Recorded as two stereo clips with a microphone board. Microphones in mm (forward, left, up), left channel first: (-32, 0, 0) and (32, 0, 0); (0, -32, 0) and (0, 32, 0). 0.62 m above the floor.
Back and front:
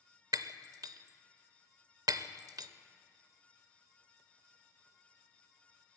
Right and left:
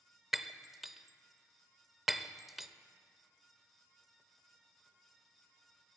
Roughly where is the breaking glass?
Ahead.